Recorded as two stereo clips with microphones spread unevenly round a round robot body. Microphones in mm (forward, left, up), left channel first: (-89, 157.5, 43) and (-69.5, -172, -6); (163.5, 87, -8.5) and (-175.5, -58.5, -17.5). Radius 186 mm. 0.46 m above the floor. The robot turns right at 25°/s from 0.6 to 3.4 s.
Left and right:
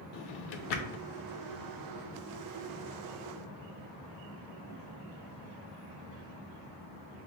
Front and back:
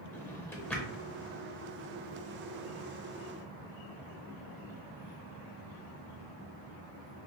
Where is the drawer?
110° left, 0.6 m; by 1.1 s 120° left, 0.6 m.